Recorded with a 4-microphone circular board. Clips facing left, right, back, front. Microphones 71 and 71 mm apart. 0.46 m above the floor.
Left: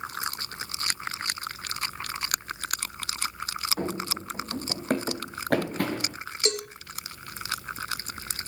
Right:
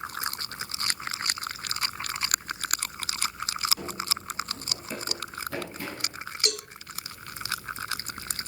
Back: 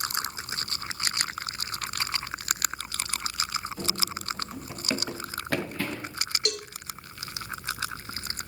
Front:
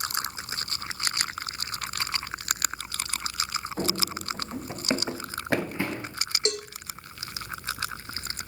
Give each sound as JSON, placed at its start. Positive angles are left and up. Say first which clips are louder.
{"t": 3.8, "sound": "running footsteps", "louder": "left 4 dB, front 3 dB", "azimuth_deg": 40, "distance_m": 1.3}
{"t": 6.5, "sound": "a cowbell", "louder": "left 6 dB, front 4 dB", "azimuth_deg": 50, "distance_m": 1.8}